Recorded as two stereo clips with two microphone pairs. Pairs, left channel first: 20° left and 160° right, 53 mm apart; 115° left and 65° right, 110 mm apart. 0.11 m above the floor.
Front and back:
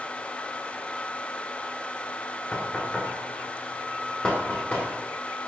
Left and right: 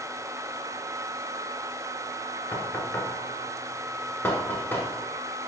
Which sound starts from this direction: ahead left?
Knocking, at 2.5 s.